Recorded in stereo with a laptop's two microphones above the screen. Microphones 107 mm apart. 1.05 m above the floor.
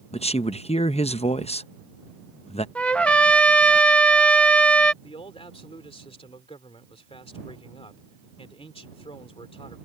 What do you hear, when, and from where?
0.1 s a man speaking: 75° left (ahead or behind)
2.8 s a trumpet: 10° left (ahead or behind)
5.0 s a man speaking: 65° left (ahead or behind)